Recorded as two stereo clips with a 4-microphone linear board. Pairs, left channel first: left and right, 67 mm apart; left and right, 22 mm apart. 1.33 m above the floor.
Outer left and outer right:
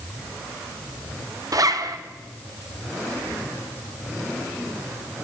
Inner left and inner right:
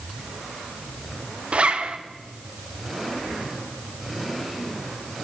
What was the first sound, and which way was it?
A zipper, 65° right (ahead or behind).